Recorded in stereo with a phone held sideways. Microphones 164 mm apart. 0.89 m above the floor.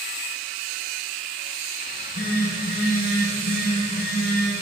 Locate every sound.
1.9 s a phone buzzing: 65° left (ahead or behind), 0.9 m